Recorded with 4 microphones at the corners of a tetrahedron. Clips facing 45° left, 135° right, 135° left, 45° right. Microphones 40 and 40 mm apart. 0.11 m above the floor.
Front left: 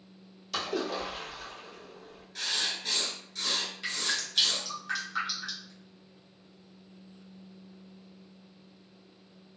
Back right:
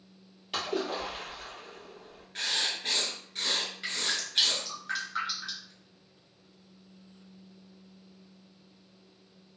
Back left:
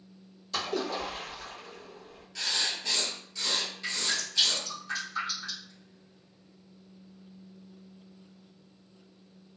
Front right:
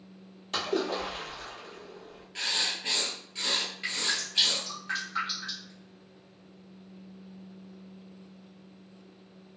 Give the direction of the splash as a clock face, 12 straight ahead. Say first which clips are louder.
Even, front right 2 dB; 3 o'clock.